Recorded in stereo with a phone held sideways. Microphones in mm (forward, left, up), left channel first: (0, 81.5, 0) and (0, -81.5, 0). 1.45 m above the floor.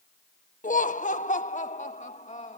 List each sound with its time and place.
0.6 s laughter: 55° left (ahead or behind); by 2.6 s 45° left (ahead or behind)